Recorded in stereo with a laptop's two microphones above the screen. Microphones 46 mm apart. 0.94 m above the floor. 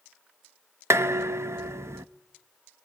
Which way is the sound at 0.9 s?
85° right.